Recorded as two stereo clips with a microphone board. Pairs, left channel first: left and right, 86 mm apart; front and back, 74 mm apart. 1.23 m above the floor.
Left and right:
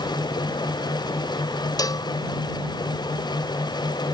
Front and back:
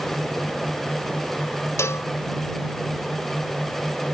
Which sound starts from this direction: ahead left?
A cowbell, at 1.8 s.